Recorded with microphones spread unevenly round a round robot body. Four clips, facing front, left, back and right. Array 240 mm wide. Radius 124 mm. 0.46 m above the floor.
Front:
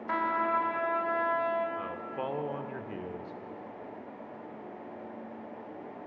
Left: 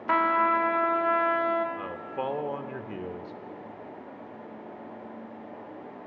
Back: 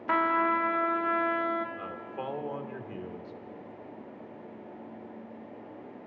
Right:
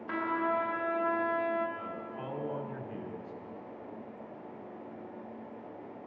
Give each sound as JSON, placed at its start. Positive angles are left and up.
{"t": 0.1, "sound": "a trumpet", "azimuth_deg": 155, "distance_m": 0.7}
{"t": 1.8, "sound": "a man speaking", "azimuth_deg": 105, "distance_m": 1.0}